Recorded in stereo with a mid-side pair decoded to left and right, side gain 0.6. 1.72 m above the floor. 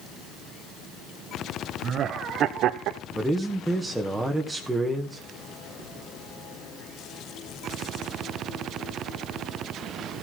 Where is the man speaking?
10° right, 2 m.